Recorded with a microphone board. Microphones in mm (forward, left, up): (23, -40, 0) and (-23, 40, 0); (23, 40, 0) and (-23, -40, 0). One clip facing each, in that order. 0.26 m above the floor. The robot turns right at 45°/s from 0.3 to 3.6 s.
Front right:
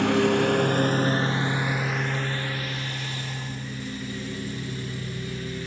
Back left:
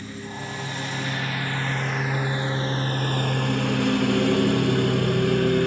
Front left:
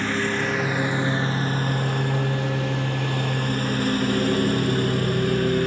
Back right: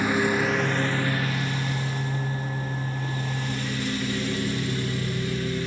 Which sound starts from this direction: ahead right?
A lawn mower, at 0.0 s.